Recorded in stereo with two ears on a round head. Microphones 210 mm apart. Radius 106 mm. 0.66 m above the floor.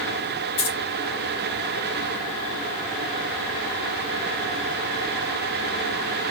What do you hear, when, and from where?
0.6 s keys jangling: 65° left (ahead or behind), 3.5 m